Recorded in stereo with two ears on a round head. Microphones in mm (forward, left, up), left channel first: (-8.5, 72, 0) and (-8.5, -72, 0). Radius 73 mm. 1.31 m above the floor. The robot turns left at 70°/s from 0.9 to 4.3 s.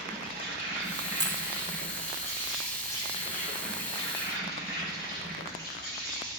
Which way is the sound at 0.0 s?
60° right.